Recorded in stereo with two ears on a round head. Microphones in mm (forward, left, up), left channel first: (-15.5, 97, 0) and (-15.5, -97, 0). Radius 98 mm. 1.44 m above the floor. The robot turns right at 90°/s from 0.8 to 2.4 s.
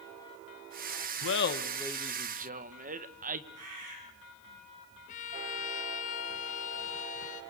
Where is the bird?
70° right (ahead or behind), 10 m.